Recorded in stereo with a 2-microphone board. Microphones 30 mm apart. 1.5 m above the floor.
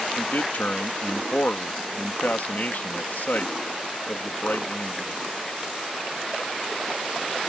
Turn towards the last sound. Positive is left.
turn(degrees=70)  # may be behind; listen again after turning